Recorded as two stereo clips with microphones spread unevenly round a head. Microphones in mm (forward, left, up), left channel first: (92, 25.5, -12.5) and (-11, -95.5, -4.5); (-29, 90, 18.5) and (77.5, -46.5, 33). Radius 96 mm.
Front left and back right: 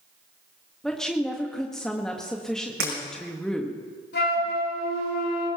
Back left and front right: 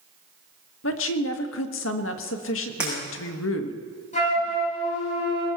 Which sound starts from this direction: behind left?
A woman speaking, at 0.8 s.